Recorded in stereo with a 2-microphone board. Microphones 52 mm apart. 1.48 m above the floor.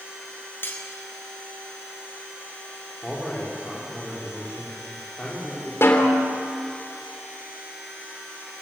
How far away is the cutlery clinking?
About 4 m.